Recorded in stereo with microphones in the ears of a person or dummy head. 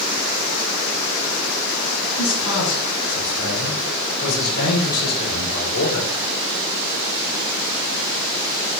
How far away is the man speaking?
About 7 m.